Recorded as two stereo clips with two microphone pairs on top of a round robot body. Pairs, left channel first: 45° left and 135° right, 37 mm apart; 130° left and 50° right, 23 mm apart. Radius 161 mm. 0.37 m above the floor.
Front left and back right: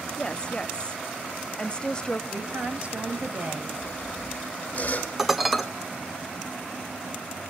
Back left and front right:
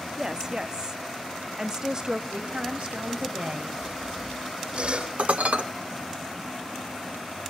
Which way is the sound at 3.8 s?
15° right.